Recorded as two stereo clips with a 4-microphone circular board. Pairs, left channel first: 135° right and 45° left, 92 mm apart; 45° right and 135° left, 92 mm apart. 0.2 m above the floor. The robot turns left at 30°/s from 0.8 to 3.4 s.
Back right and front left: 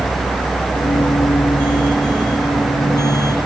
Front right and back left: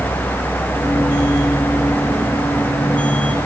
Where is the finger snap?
No finger snap in this recording.